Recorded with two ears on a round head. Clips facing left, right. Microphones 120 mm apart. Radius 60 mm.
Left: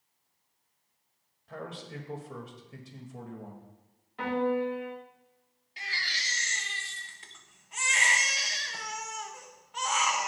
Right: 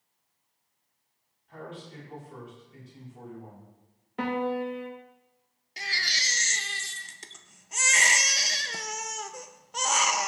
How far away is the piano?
About 2 m.